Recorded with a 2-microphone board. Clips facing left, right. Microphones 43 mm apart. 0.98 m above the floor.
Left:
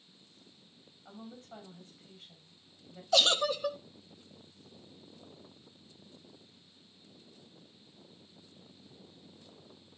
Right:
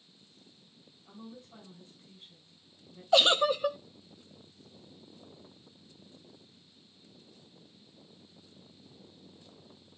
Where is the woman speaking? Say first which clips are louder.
Left 1 dB; 60° left (ahead or behind), 6.5 m.